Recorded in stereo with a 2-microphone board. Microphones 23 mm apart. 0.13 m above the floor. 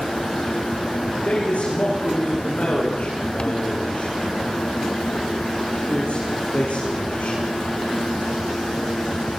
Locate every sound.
1.2 s a man speaking: 60° left (ahead or behind), 9 m